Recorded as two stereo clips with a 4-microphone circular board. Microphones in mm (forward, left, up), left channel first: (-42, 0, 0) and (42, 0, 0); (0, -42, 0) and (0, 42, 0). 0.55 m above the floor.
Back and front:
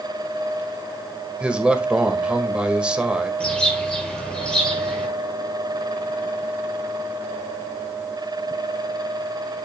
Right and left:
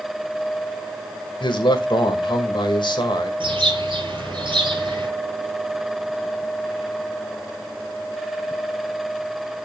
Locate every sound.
1.4 s a man speaking: 80° right, 1.9 m
3.4 s a bird: 100° left, 5 m